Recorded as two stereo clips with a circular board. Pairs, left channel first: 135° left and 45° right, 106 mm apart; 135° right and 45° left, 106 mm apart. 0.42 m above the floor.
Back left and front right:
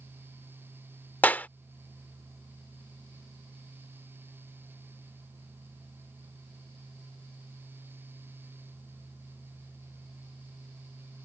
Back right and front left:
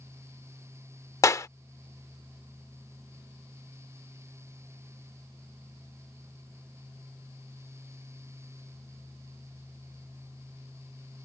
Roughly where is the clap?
Behind.